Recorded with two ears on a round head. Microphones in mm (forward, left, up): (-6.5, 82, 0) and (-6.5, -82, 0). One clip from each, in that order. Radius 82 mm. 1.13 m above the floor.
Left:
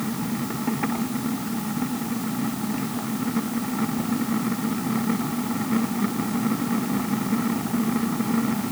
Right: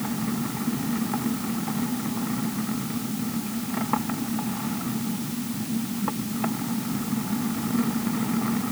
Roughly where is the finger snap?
I don't hear a finger snap.